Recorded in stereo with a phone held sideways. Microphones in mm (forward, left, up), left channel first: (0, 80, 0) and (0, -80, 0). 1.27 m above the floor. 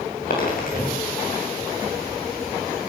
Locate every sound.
0.3 s a dropped coin: 65° left (ahead or behind), 6.5 m